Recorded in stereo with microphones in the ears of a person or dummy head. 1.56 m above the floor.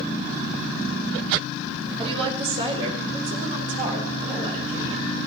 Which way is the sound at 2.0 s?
25° right (ahead or behind).